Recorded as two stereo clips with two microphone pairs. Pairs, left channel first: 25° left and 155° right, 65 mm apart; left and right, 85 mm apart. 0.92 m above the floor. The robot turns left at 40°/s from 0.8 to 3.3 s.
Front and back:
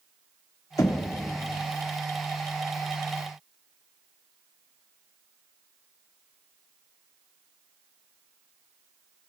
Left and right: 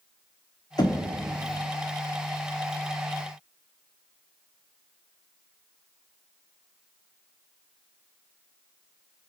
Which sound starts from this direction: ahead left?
Knocking, at 0.8 s.